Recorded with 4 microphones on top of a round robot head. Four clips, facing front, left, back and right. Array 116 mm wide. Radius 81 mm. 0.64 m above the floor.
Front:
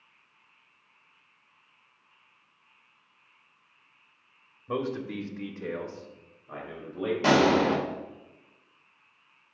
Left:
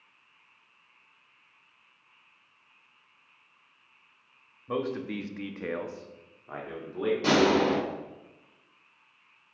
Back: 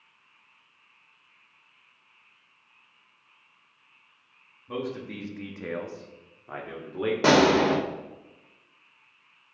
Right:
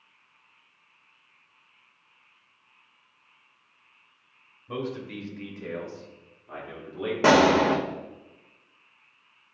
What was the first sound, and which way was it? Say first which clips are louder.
A man speaking: left 2 dB, front 2 dB; 50° left.